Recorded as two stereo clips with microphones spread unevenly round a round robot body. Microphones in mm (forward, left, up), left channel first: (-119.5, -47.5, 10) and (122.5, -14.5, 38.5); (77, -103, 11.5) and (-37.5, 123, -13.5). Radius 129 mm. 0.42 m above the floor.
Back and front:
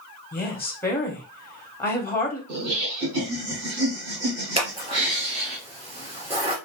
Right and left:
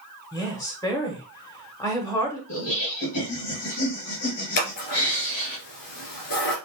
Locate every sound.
0.3 s a woman speaking: 135° right, 1.1 m
2.5 s laughter: 15° right, 3 m
4.6 s scissors: 60° right, 2.5 m